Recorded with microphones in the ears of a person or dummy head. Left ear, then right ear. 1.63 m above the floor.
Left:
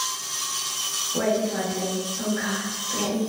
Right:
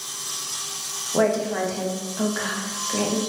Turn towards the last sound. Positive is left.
turn(degrees=-50)  # may be behind; listen again after turning